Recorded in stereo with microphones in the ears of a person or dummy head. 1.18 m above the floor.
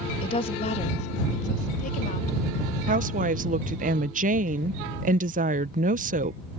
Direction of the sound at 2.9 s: 40° right (ahead or behind).